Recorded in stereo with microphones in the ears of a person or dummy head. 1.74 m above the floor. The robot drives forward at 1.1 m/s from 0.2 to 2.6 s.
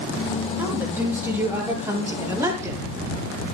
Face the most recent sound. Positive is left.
turn(degrees=-10)  # may be behind; listen again after turning